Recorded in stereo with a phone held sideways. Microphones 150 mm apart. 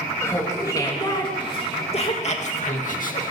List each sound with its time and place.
0.2 s laughter: 15° left (ahead or behind), 3 m; by 3.3 s 65° left (ahead or behind), 2.5 m